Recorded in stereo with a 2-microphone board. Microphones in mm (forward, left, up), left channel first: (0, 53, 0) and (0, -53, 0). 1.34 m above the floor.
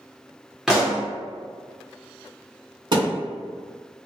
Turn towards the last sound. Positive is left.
turn(degrees=-45)  # may be behind; listen again after turning